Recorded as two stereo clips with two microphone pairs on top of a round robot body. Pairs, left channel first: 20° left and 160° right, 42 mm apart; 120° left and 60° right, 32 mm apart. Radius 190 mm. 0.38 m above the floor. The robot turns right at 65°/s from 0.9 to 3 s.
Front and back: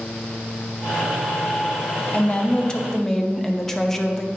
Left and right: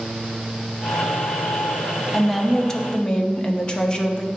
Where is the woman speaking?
30° left, 1.0 m; by 4.3 s 85° left, 1.0 m.